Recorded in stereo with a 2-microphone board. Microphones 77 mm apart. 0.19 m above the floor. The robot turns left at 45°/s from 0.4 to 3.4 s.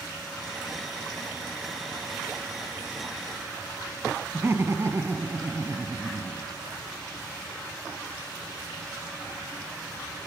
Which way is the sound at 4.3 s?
35° right (ahead or behind).